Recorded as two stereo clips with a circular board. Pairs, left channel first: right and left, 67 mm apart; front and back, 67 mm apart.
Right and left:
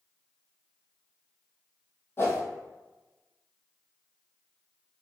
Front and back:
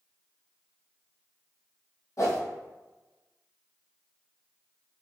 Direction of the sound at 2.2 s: 40° right.